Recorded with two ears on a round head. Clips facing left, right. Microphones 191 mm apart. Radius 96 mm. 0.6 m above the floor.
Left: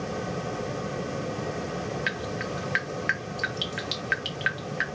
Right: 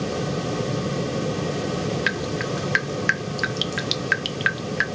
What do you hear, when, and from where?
2.1 s dripping: 60° right (ahead or behind), 0.5 m